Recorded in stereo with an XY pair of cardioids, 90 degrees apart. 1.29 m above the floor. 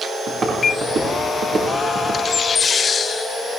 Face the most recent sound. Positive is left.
turn(degrees=-55)